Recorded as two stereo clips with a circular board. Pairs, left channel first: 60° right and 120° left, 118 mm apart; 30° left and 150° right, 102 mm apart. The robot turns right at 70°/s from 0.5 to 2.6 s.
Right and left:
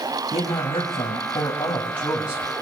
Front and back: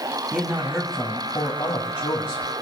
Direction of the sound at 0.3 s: 90° right.